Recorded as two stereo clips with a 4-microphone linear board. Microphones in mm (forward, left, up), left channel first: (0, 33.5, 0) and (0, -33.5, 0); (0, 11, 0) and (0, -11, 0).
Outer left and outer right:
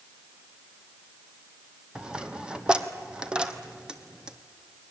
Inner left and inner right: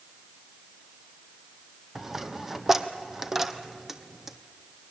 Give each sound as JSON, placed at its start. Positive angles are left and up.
{"t": 1.9, "sound": "a dropped coin", "side_deg": -15, "distance_m": 1.2}